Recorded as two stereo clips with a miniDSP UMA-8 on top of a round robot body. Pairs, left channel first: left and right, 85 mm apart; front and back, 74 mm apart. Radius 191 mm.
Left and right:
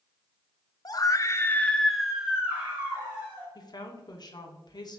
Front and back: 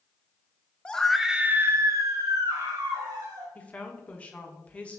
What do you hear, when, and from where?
0.8 s a scream: 75° left, 1.1 m; by 3.5 s 150° right, 2 m
3.5 s a woman speaking: 70° left, 1.2 m